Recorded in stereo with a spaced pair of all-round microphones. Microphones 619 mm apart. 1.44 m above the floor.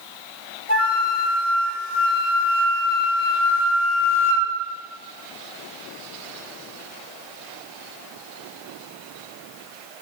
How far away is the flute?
About 3.5 m.